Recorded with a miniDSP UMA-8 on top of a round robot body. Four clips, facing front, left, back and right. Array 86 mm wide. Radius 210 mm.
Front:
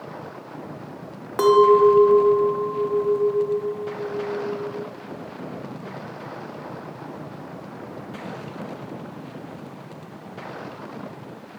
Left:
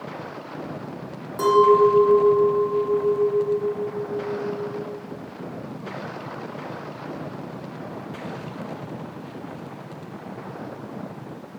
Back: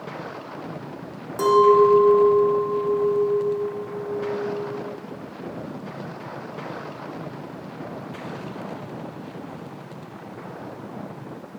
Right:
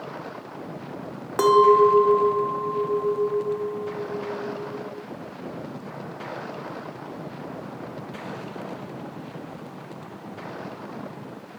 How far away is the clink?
About 1.0 m.